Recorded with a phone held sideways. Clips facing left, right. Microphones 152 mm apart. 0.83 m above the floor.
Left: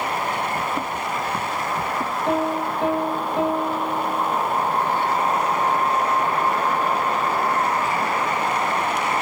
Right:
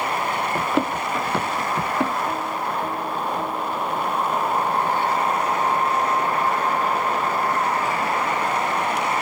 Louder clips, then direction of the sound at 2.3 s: Left 4 dB; 80° left.